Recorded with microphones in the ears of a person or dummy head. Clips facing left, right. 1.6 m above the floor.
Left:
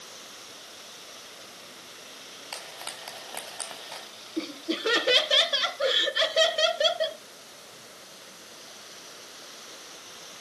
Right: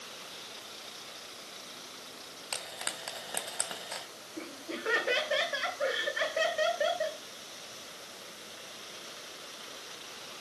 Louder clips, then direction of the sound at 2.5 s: Even; 20° right (ahead or behind).